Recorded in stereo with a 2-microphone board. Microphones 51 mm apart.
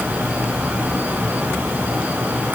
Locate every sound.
Only background noise.